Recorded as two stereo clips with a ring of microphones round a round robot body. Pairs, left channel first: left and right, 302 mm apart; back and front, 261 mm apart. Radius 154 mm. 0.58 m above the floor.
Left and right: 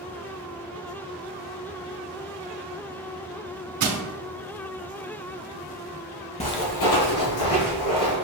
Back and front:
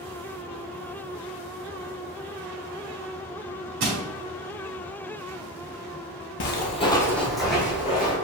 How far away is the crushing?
About 0.9 m.